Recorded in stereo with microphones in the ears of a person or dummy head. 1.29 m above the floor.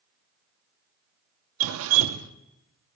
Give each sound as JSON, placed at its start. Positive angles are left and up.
{"t": 1.6, "sound": "dripping", "side_deg": -70, "distance_m": 0.7}